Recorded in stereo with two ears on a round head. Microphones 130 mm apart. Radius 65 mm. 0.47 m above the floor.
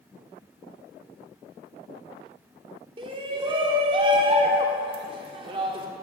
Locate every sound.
3.0 s a shout: 35° right (ahead or behind), 0.8 m